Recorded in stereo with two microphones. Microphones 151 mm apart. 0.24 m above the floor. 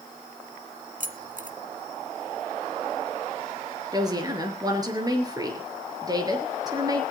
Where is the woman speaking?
25° right (ahead or behind), 4 m.